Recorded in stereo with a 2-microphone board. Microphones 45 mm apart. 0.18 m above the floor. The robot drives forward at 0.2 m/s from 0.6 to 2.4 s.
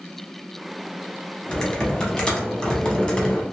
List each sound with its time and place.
1.5 s typing on a keyboard: 20° left (ahead or behind), 0.7 m; by 3.4 s 15° left (ahead or behind), 0.8 m